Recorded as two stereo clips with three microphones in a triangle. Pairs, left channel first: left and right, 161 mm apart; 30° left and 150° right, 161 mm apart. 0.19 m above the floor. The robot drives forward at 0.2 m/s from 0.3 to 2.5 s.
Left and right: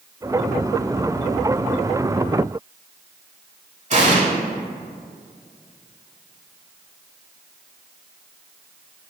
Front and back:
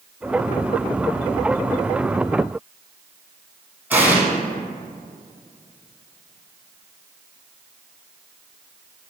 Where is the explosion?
75° right, 0.5 m.